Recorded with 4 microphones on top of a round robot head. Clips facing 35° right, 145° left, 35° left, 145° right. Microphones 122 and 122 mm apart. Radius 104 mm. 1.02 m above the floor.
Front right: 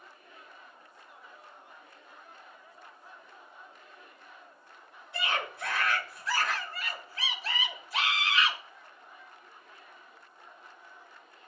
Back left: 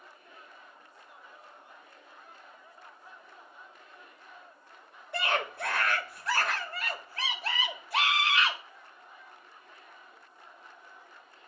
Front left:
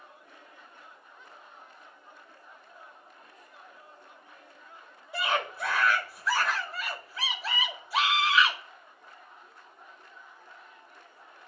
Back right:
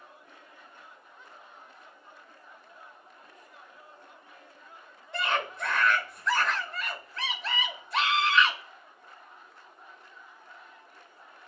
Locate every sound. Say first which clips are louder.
5.1 s a scream: back left 3 dB, even; 115° left, 1.8 m